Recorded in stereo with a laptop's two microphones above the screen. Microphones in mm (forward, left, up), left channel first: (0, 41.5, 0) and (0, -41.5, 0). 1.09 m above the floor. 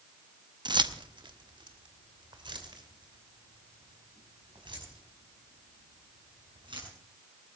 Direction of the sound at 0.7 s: 65° right (ahead or behind).